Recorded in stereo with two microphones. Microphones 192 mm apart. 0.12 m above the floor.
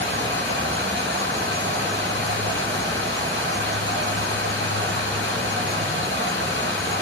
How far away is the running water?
About 3 m.